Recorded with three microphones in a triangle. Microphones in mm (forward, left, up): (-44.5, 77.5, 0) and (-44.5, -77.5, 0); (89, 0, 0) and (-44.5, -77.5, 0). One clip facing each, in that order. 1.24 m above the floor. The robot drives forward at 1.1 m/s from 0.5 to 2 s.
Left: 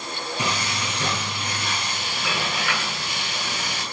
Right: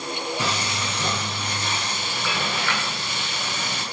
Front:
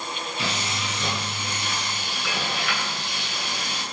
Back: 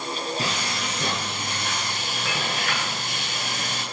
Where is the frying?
165° left, 8.5 m.